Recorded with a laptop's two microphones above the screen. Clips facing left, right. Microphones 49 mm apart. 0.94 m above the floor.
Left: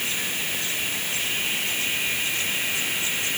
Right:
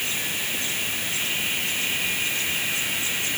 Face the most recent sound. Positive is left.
No sound to turn to.